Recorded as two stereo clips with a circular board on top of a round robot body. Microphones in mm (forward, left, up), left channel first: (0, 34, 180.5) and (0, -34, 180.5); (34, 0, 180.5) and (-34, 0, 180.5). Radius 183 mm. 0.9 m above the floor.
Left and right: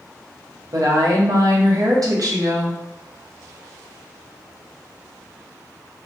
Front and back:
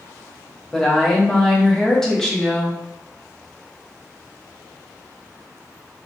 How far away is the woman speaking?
About 0.9 m.